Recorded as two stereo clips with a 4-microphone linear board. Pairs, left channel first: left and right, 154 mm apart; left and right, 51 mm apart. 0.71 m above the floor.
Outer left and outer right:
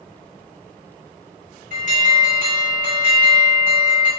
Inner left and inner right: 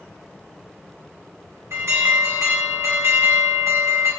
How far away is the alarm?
About 4 m.